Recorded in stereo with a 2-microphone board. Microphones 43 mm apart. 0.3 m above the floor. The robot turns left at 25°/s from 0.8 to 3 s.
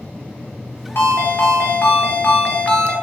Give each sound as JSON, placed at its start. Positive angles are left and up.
{"t": 0.9, "sound": "a ringtone", "azimuth_deg": 80, "distance_m": 1.2}